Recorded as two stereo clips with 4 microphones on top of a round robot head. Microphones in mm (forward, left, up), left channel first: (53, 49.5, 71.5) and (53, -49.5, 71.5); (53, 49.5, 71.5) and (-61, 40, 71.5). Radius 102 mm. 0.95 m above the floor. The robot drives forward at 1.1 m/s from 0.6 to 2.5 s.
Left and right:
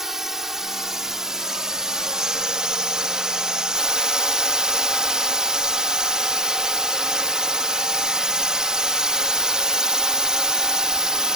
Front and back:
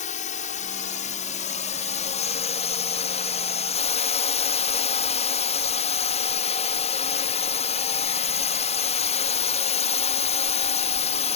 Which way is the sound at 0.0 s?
5° right.